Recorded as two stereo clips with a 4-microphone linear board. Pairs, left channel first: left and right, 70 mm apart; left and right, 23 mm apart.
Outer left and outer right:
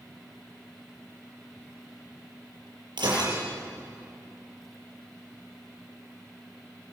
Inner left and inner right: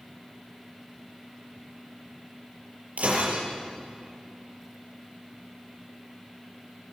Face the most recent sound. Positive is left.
turn(degrees=-85)